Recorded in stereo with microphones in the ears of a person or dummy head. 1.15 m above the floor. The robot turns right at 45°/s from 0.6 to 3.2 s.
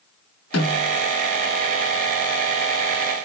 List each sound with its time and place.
0.5 s a snare drum: 65° left (ahead or behind), 6.5 m; by 0.9 s 80° left, 6.5 m